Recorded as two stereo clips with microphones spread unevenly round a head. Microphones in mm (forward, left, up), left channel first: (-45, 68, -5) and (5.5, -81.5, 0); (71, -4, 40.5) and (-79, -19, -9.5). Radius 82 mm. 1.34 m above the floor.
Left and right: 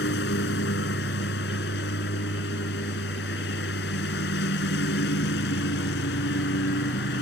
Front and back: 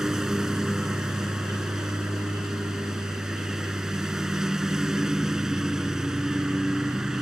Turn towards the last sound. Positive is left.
turn(degrees=95)